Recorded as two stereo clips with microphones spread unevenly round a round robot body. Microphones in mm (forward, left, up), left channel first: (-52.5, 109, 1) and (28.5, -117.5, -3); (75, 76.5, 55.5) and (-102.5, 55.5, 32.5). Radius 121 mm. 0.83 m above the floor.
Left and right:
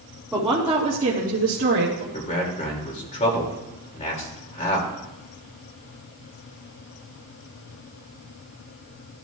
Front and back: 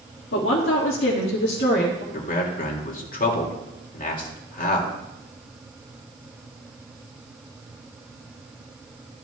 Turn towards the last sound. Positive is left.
turn(degrees=45)